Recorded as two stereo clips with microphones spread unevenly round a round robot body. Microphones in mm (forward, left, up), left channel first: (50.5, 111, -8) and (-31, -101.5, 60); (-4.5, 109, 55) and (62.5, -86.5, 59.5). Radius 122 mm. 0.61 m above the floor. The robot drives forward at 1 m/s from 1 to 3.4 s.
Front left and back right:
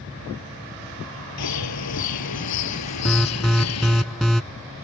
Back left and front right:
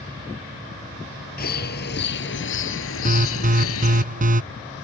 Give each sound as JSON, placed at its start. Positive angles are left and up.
{"t": 1.4, "sound": "a bird", "azimuth_deg": 65}
{"t": 3.0, "sound": "an alarm", "azimuth_deg": -20}